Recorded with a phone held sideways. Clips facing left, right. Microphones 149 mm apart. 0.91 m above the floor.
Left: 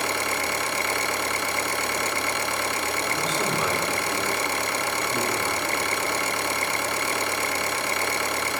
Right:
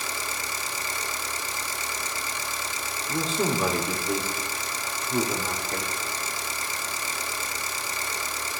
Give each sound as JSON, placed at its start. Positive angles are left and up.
{"t": 0.0, "sound": "an engine running", "side_deg": 65, "distance_m": 0.8}
{"t": 3.1, "sound": "a man speaking", "side_deg": -30, "distance_m": 2.5}